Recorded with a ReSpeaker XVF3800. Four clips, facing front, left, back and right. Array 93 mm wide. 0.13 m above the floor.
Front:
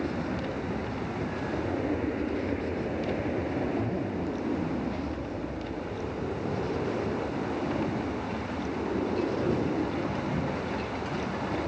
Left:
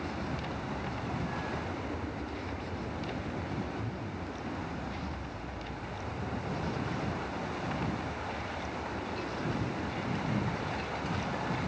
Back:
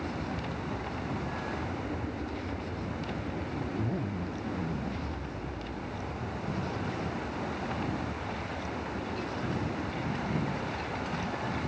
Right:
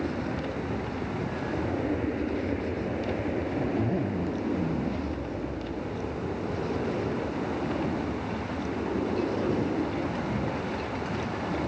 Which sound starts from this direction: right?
A zipper, at 3.6 s.